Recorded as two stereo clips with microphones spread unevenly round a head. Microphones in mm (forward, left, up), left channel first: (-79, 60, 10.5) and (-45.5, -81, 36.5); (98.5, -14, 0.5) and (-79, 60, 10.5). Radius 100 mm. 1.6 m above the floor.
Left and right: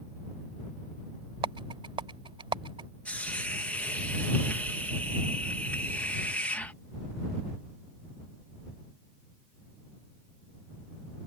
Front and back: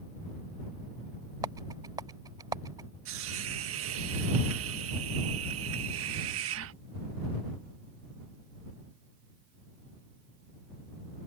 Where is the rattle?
130° right.